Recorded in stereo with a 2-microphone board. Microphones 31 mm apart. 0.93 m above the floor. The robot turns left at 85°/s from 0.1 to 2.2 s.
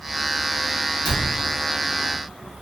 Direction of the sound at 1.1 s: 40° left (ahead or behind).